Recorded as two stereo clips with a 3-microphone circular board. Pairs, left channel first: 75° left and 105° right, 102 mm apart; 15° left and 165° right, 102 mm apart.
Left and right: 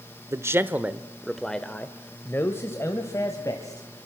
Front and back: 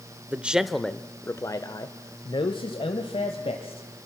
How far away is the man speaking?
About 0.9 m.